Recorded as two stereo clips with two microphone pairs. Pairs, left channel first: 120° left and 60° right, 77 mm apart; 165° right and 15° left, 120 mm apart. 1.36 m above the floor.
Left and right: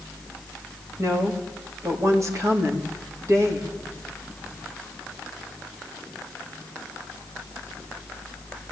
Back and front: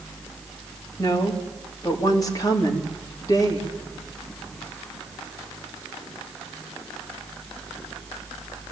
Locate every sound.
1.0 s a woman speaking: 110° right, 3.5 m